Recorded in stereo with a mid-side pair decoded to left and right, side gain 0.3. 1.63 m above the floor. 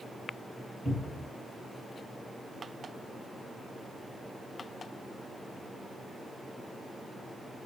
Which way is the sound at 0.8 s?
40° left.